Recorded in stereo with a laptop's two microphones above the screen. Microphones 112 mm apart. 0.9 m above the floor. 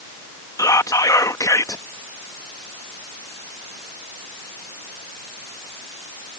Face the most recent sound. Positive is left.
turn(degrees=30)  # may be behind; listen again after turning